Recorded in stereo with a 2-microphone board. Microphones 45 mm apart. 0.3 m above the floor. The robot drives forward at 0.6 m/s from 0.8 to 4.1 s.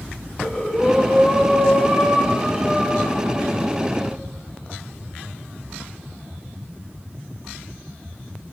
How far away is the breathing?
About 0.8 m.